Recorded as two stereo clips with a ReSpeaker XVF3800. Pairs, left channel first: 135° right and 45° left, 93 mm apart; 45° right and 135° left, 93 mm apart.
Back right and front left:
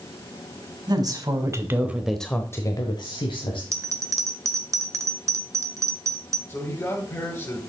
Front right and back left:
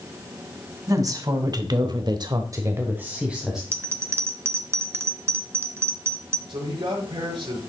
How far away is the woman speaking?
About 2.5 m.